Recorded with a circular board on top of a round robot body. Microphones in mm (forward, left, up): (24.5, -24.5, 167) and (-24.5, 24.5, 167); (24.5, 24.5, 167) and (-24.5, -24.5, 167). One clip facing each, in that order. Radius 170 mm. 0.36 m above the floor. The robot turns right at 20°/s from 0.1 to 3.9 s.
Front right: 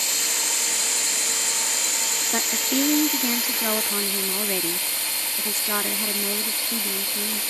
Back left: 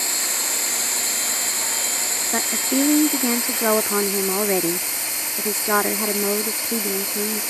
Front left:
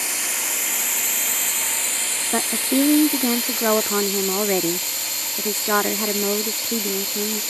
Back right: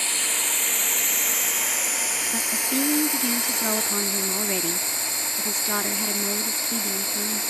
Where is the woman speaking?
60° left; by 7.4 s 90° left.